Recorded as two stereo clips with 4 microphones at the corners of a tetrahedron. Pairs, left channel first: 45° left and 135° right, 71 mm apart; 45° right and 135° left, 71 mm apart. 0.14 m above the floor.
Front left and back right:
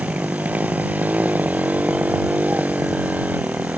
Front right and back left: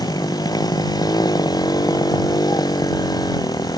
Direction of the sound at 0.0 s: 65° right.